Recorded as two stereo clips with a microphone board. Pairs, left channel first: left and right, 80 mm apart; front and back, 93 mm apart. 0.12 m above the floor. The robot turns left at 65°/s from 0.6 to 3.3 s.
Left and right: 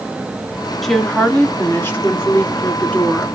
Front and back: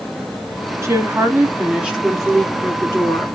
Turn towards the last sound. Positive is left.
turn(degrees=15)